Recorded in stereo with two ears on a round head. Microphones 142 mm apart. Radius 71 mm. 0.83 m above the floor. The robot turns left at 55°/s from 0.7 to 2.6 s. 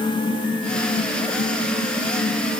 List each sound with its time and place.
Only background noise.